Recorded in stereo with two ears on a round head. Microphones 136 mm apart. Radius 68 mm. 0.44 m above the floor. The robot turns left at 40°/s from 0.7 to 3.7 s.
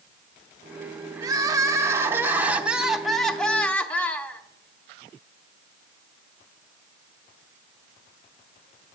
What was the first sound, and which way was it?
Crying, 25° right (ahead or behind).